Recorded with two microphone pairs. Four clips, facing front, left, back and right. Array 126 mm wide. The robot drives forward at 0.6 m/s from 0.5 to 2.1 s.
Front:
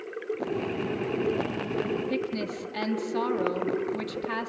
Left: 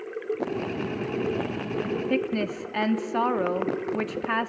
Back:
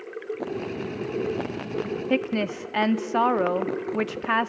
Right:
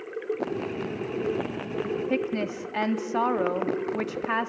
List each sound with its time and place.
2.1 s a woman speaking: 175° right, 0.7 m